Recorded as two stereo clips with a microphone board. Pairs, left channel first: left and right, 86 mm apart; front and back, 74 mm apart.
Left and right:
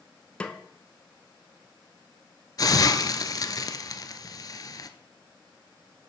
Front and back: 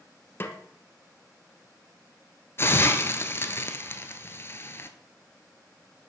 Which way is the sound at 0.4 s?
25° left.